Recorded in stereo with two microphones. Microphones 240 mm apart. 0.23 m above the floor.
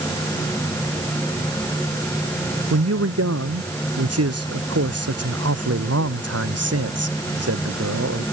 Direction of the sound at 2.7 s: 80° right.